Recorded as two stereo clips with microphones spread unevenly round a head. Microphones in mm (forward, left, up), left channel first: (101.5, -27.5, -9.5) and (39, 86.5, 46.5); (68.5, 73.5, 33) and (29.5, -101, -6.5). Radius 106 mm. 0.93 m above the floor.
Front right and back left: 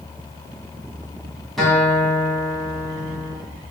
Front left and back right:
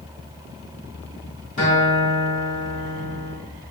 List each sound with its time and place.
1.6 s a guitar: 35° left, 2 m